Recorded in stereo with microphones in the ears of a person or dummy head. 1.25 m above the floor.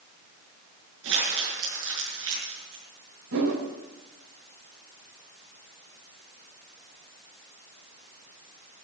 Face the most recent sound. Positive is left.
turn(degrees=-80)